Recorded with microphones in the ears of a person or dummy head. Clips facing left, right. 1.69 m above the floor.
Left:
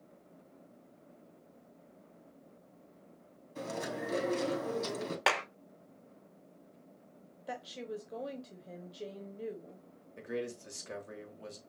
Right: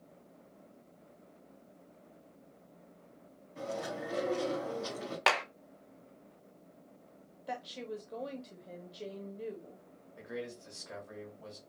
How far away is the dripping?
No dripping in this recording.